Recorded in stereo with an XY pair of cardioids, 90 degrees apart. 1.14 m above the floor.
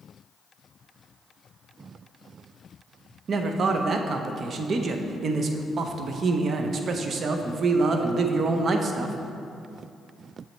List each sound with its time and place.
3.3 s a man speaking: 55° right, 0.6 m